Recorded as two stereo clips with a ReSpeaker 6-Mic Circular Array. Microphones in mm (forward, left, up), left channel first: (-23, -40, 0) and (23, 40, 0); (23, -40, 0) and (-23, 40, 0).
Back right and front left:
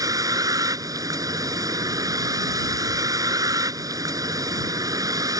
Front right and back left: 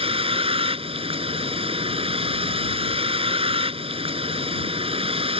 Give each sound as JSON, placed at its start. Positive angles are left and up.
{"t": 0.0, "sound": "a vehicle", "azimuth_deg": 110}